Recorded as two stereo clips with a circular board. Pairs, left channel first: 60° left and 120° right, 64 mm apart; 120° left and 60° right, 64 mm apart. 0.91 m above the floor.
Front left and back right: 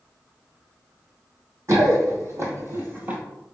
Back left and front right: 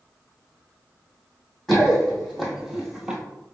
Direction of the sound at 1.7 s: 150° right.